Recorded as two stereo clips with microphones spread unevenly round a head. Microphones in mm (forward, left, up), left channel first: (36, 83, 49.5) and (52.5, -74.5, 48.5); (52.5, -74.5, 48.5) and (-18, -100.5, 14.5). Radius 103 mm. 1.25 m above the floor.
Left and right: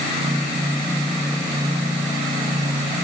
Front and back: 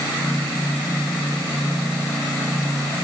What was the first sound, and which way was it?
Only background noise.